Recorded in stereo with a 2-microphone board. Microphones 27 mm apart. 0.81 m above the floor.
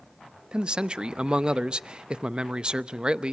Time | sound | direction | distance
0.5 | a man speaking | 30° right (ahead or behind) | 0.6 m